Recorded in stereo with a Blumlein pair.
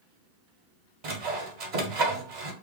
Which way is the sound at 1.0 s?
45° right.